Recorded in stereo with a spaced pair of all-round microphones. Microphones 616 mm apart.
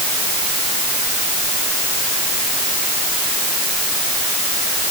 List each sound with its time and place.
Only background noise.